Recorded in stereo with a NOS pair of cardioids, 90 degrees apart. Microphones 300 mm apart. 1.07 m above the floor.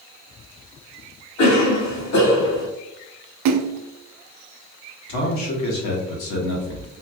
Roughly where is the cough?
Ahead left.